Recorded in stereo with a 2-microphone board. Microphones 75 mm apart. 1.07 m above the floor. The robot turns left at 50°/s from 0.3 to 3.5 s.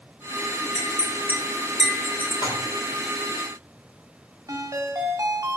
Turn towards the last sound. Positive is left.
turn(degrees=-50)  # may be behind; listen again after turning